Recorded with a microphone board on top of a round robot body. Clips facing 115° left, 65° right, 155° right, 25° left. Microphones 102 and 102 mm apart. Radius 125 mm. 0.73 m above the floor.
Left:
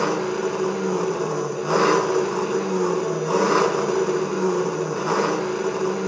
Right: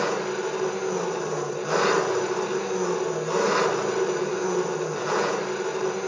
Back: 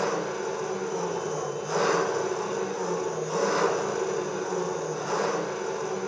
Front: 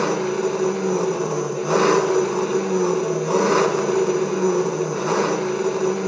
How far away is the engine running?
About 2.5 m.